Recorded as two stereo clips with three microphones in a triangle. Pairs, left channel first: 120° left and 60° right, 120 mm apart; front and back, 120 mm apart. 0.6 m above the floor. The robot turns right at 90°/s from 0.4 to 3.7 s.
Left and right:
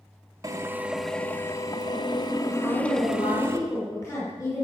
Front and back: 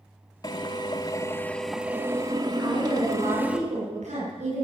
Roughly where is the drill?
Ahead right.